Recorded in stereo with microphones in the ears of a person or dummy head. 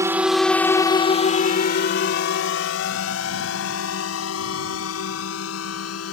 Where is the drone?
15° right (ahead or behind); by 6.1 s 85° left.